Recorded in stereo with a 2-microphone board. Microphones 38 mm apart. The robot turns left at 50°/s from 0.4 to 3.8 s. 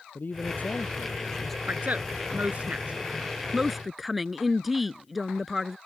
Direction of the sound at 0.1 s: 60° left.